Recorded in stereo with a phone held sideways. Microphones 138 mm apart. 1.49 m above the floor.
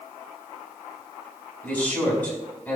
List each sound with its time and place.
1.6 s a man speaking: 10° left (ahead or behind), 5 m